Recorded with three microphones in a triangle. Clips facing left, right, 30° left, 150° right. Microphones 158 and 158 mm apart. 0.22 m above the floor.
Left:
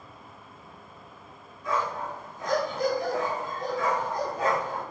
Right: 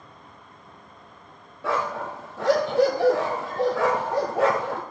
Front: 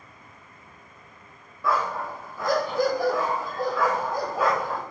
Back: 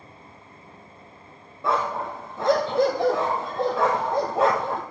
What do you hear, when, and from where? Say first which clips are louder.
1.6 s a dog barking: right 3 dB, back 1 dB; 85° right, 1.7 m